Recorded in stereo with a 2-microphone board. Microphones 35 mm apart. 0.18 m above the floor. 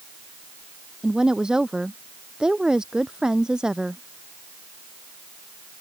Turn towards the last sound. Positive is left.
turn(degrees=-20)  # may be behind; listen again after turning